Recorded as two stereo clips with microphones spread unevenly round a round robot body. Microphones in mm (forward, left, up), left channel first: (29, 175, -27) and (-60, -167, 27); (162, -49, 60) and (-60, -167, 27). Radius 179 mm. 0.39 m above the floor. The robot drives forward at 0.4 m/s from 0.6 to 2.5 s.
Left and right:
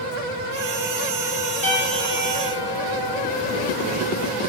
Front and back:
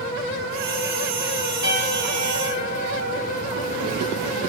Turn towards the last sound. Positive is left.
turn(degrees=150)